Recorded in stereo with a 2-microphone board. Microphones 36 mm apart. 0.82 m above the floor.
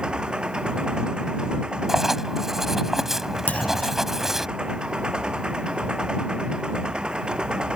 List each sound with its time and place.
0.0 s an engine running: 30° right (ahead or behind)
1.9 s writing: 5° right (ahead or behind)
3.5 s a clunk: 55° left (ahead or behind)